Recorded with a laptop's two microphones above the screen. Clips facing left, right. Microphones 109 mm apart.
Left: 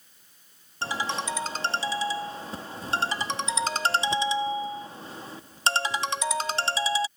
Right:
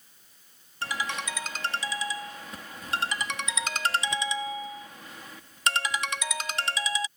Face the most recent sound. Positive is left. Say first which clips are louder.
# left 3 dB
turn(degrees=30)  # may be behind; listen again after turning